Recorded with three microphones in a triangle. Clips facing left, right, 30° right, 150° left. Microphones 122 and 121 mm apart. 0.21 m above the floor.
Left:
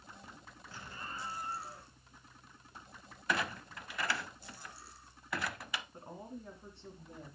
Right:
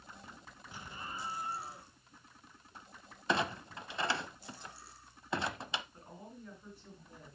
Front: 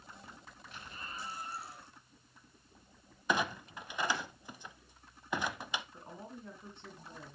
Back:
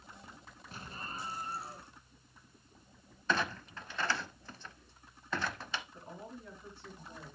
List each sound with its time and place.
0.7 s an explosion: 160° right, 1.6 m
3.3 s a clunk: 85° right, 0.6 m
5.9 s a woman speaking: 35° left, 2.5 m